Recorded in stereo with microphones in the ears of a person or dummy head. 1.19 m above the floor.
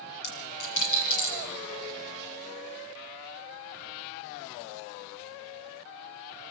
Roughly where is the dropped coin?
Left.